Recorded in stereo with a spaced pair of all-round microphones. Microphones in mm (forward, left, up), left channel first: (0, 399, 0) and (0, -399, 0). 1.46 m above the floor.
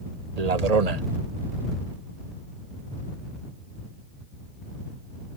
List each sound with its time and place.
0.4 s a man speaking: 50° right (ahead or behind)